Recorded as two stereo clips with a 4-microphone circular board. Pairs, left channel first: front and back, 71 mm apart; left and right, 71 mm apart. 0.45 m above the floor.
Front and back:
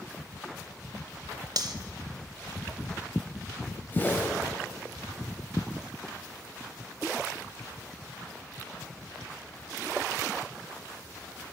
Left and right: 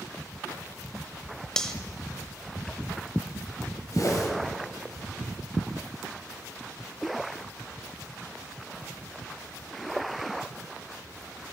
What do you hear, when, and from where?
1.6 s cutlery clinking: 170° left, 1.0 m
3.9 s a whoosh: 60° left, 2 m